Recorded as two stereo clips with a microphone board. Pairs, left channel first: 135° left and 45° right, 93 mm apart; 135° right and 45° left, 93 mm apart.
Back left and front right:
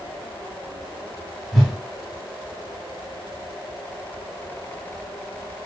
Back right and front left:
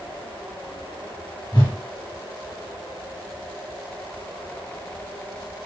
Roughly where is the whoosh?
Behind right.